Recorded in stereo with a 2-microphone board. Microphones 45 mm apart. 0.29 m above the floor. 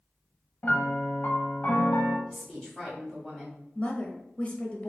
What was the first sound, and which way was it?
A piano, 45° left (ahead or behind).